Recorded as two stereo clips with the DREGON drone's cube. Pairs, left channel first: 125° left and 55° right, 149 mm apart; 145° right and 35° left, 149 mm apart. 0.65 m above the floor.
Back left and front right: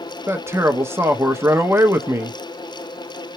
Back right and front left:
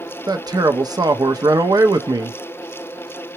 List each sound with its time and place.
0.3 s a man speaking: straight ahead, 0.6 m